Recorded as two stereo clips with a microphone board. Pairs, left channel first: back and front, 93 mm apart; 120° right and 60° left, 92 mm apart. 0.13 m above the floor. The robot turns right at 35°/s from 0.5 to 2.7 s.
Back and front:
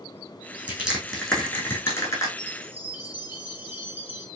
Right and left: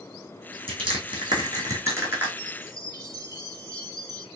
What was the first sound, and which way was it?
Crushing, 75° left.